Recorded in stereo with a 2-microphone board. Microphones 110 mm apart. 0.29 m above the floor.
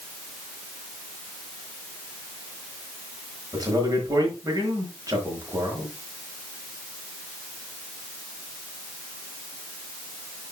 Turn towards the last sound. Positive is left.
turn(degrees=-30)  # may be behind; listen again after turning